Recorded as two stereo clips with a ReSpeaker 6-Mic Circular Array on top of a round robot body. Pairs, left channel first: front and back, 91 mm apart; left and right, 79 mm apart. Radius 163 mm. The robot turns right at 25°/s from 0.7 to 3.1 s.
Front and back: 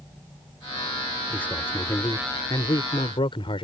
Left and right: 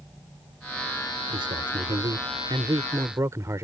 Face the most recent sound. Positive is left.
turn(degrees=-30)